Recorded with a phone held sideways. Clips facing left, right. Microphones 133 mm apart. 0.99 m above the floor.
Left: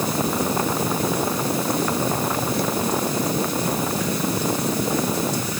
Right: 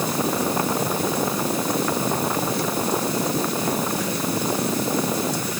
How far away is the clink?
I don't hear a clink.